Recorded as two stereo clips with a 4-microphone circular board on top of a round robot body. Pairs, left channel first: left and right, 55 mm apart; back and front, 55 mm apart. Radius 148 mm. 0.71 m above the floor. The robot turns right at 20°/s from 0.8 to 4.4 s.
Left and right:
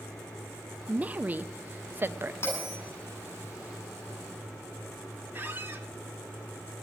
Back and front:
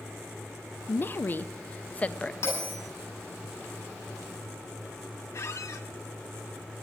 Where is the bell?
145° left, 9.5 m; by 2.8 s 150° left, 9.5 m.